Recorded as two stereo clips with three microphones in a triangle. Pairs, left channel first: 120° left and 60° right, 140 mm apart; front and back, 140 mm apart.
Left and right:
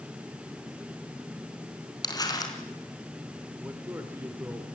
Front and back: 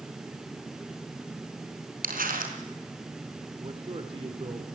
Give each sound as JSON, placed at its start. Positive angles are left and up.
{"t": 2.0, "sound": "crumpling", "azimuth_deg": 180, "distance_m": 3.5}
{"t": 3.6, "sound": "a man speaking", "azimuth_deg": -135, "distance_m": 2.5}